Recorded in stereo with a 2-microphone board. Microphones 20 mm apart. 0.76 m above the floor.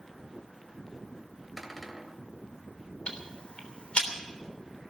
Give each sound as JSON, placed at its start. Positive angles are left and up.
{"t": 1.6, "sound": "a cupboard door", "side_deg": -5, "distance_m": 2.5}
{"t": 3.1, "sound": "ticking", "side_deg": 60, "distance_m": 3.0}